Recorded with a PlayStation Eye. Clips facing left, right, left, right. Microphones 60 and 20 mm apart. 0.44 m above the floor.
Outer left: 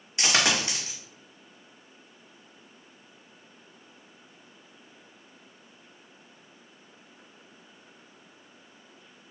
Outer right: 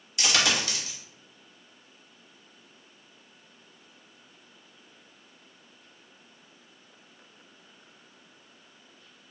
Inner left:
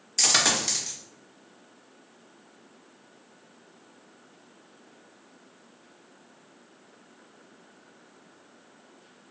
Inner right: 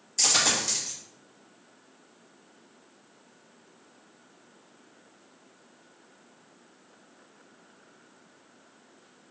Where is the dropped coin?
30° left (ahead or behind), 0.8 m.